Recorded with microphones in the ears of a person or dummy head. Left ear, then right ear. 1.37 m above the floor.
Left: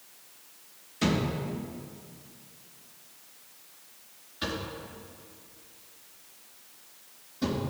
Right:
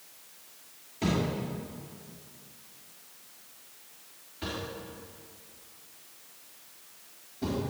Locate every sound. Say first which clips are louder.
1.0 s a thud: left 2 dB; 65° left (ahead or behind), 4 m